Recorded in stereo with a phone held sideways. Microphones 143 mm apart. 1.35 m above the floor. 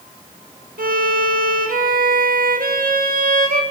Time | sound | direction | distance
0.8 | a violin | 85° right | 1.7 m